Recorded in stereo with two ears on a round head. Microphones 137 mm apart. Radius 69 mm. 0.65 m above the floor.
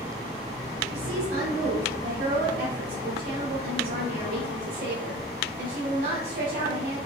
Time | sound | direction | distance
0.9 | a woman speaking | 70° right (ahead or behind) | 1.3 m